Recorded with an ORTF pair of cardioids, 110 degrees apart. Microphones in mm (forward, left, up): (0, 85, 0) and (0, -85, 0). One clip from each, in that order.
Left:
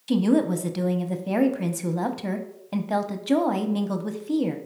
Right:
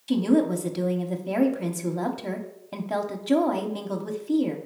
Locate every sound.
0.1 s a woman speaking: 10° left, 0.6 m